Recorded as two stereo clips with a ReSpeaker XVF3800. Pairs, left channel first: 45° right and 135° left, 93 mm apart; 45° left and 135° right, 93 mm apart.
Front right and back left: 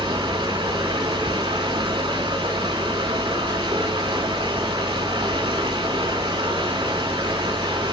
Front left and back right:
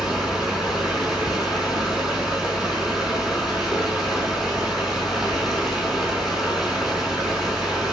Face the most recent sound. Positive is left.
turn(degrees=140)